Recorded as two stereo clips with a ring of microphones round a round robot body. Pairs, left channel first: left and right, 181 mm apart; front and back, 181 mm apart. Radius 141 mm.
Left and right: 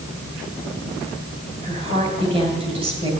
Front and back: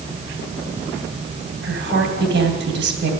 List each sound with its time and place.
1.6 s a woman speaking: 155° right, 2.5 m